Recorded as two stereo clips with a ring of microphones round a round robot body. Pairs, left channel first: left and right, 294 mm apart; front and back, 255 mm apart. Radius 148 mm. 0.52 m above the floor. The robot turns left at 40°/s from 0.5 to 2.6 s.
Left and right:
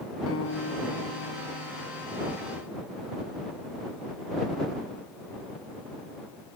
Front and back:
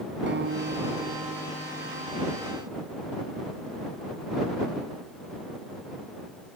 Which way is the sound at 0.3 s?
135° left.